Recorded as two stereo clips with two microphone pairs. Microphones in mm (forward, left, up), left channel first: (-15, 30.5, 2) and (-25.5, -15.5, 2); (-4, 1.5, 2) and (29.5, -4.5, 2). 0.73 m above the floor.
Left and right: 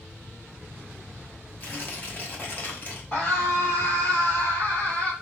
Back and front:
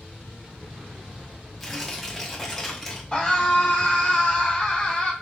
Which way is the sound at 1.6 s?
90° left.